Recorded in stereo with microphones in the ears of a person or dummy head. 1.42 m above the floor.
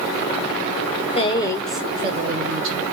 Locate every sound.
1.1 s a woman speaking: 40° left (ahead or behind), 0.6 m; by 2.8 s 55° right (ahead or behind), 0.7 m